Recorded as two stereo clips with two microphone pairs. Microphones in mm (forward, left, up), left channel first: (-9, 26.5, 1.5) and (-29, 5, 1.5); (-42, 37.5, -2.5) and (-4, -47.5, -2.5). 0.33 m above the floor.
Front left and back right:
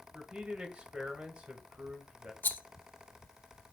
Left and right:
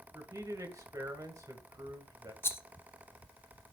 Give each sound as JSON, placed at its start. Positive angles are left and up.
{"t": 0.1, "sound": "a man speaking", "azimuth_deg": -100, "distance_m": 2.0}
{"t": 2.4, "sound": "a rattle", "azimuth_deg": 50, "distance_m": 0.7}